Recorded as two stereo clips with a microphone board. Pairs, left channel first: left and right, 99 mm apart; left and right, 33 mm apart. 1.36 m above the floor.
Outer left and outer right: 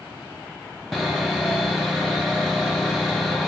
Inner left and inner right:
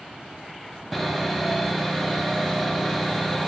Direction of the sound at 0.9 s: Centre (ahead or behind).